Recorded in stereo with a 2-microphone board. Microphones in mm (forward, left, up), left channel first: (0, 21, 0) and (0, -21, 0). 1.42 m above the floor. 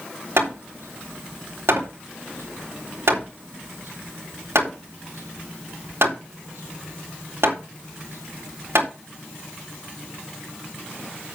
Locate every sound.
0.4 s hammering: 80° right, 3.5 m